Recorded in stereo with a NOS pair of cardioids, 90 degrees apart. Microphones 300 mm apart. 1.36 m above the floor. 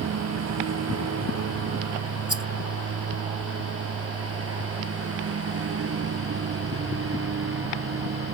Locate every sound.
0.0 s a lawn mower: 55° right; by 8.3 s 45° right
2.3 s a rattle: 15° right